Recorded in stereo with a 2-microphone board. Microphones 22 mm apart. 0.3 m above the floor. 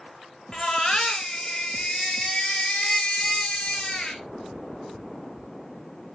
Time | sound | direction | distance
0.5 | a baby crying | 30° left (ahead or behind) | 2 m